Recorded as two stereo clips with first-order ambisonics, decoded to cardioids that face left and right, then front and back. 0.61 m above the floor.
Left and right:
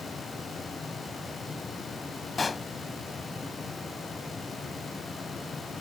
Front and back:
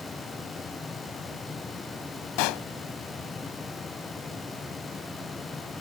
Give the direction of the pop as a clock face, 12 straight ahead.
12 o'clock.